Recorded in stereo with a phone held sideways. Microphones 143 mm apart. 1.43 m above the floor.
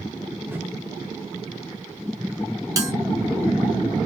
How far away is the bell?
About 0.7 m.